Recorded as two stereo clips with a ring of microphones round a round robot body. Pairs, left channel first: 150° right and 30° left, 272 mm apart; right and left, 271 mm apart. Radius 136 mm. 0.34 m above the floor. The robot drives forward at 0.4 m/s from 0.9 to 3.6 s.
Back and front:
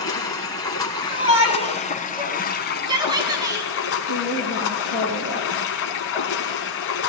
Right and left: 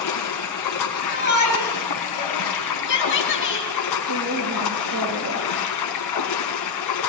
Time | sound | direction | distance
0.0 | running water | 75° right | 1.9 m
1.1 | a shout | 35° right | 4 m
4.1 | a woman speaking | 60° left | 5.5 m